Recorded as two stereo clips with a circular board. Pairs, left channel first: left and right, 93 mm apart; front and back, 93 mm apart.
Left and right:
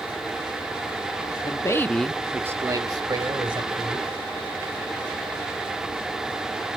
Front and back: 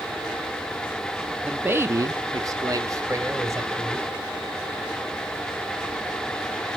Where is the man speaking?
110° left, 0.8 m; by 4.1 s 120° right, 2 m.